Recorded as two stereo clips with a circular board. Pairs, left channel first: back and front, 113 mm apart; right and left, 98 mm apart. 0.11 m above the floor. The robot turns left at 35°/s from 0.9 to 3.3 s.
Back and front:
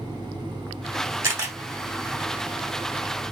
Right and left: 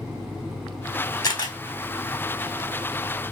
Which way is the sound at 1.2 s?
55° right.